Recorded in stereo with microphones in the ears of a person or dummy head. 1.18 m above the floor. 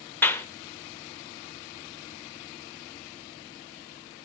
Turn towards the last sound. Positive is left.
turn(degrees=10)  # may be behind; listen again after turning